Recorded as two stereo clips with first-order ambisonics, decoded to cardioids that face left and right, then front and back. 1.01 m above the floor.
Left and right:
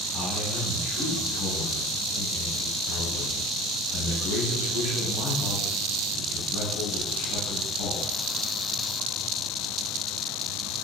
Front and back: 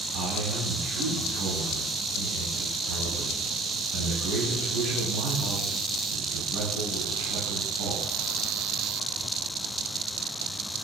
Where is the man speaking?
155° left, 6.5 m.